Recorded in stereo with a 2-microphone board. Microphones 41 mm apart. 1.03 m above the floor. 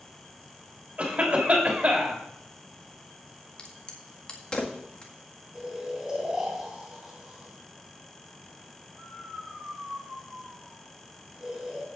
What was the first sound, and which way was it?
A cough, 35° right (ahead or behind).